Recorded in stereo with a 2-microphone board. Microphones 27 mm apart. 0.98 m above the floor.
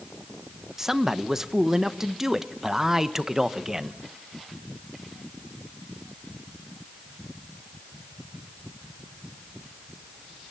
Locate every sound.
0.8 s a man speaking: 15° right (ahead or behind), 0.8 m